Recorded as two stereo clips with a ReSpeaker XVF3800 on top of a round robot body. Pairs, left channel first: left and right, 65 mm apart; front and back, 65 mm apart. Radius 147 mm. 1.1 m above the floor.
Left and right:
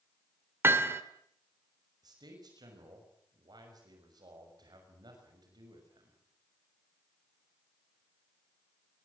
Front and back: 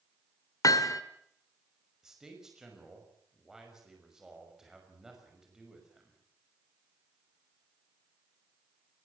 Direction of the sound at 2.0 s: 100° right.